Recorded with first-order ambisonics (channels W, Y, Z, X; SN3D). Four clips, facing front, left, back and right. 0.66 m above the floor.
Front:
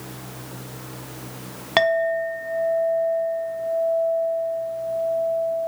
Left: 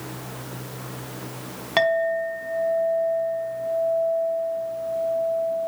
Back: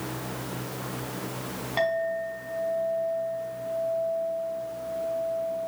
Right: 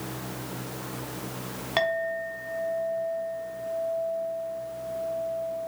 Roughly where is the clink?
Ahead.